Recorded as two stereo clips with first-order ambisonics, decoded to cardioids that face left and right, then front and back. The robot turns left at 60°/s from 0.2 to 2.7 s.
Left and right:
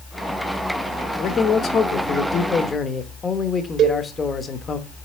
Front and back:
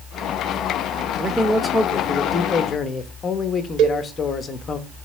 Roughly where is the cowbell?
Behind right.